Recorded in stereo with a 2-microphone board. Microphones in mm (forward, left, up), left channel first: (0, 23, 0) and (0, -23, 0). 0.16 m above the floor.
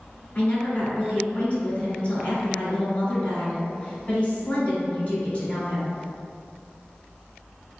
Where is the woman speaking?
35° left (ahead or behind), 1.8 m.